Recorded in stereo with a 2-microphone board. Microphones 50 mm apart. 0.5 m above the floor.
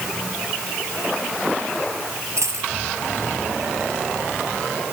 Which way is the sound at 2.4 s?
80° right.